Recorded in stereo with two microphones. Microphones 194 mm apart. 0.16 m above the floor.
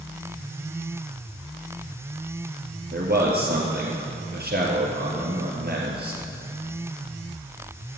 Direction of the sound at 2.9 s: 55° right (ahead or behind).